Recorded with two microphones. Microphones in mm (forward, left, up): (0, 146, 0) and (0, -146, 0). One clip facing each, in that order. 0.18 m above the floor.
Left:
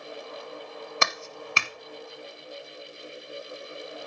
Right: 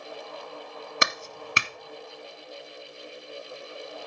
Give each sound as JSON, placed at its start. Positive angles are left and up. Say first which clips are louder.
{"t": 1.0, "sound": "a clap", "louder": "right 2 dB", "side_deg": -20, "distance_m": 0.9}